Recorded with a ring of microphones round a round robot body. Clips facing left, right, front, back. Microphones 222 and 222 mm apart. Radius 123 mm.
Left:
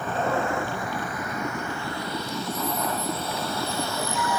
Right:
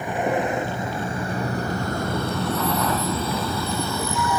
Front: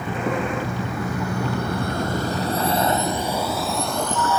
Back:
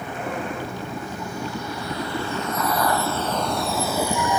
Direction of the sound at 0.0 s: 15° right.